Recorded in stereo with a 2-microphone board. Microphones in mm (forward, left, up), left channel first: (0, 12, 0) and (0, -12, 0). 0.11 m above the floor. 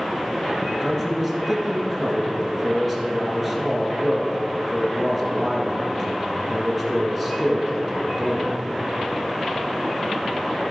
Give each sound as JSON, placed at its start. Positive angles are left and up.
{"t": 0.7, "sound": "a man speaking", "side_deg": -10, "distance_m": 1.5}